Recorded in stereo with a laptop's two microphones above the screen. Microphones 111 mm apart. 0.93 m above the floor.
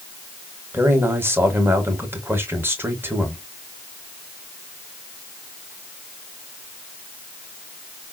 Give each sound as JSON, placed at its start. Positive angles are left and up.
{"t": 0.7, "sound": "a man speaking", "side_deg": -20, "distance_m": 1.1}